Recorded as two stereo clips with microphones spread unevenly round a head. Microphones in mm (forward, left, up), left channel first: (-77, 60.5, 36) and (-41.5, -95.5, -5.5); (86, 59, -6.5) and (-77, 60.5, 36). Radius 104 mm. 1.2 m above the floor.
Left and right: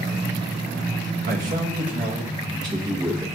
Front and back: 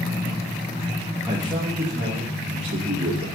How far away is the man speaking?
About 1.2 m.